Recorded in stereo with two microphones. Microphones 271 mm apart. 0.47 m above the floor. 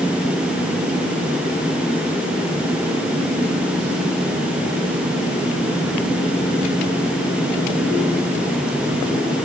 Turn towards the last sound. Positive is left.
No sound to turn to.